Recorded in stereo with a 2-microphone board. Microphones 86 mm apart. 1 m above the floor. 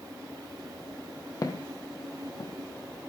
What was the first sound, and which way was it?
Footsteps, 45° left (ahead or behind).